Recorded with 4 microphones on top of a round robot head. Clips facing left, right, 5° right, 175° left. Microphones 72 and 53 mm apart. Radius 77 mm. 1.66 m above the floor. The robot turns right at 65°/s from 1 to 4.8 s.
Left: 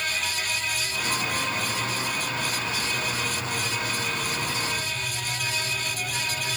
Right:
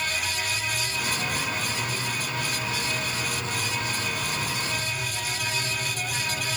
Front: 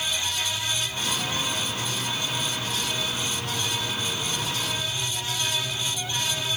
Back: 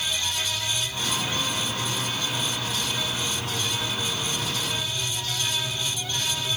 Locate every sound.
Only background noise.